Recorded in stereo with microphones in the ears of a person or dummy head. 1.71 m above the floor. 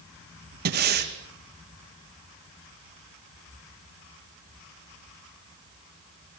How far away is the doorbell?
I don't hear a doorbell.